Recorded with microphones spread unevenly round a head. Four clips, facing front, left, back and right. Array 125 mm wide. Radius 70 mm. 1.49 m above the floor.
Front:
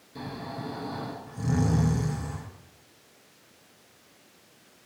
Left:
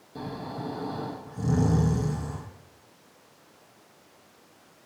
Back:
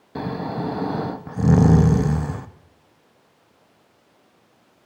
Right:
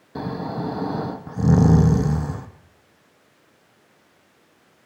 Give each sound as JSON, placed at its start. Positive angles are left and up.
{"t": 0.1, "sound": "snoring", "azimuth_deg": -135, "distance_m": 0.6}